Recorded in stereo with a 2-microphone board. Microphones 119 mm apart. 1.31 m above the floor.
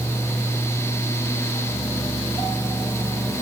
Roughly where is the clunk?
I don't hear a clunk.